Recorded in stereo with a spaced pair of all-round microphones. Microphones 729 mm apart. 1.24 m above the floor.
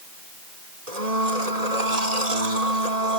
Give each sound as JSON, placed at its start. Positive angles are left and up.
{"t": 0.9, "sound": "a blender", "side_deg": -55}